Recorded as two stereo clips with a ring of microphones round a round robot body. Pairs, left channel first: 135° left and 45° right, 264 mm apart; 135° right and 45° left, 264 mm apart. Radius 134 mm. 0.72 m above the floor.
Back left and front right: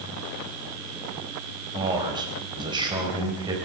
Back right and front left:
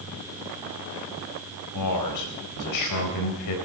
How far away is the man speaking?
About 4 m.